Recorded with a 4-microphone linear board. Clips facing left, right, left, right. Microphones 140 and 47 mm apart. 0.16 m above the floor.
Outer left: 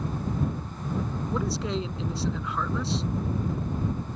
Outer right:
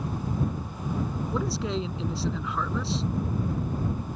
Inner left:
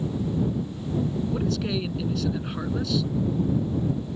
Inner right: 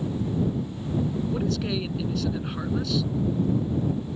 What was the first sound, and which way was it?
A man speaking, centre (ahead or behind).